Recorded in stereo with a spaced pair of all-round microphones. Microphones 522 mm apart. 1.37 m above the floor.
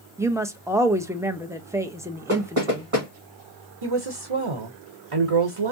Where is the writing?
No writing in this recording.